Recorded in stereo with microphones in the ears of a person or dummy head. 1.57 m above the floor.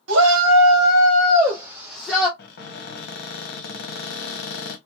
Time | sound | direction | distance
0.1 | a shout | 70° right (ahead or behind) | 0.9 m
2.4 | a cupboard door | 55° left (ahead or behind) | 0.8 m